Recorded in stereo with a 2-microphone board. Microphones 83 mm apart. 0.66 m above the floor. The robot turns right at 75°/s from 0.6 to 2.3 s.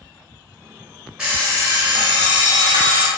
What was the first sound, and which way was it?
An alarm clock, 170° right.